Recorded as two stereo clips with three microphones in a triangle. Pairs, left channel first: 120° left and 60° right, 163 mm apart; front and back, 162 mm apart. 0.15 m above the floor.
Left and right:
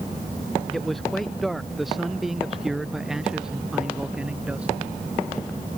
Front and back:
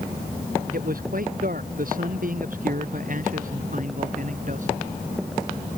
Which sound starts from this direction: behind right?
A man speaking, at 0.7 s.